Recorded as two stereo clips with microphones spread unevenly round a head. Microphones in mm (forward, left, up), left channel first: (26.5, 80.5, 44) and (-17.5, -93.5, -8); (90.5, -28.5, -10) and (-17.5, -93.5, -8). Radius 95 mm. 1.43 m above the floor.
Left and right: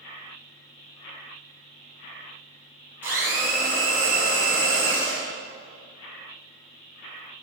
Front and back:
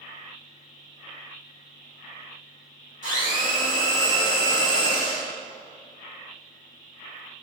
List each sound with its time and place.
3.0 s a blender: 170° left, 2 m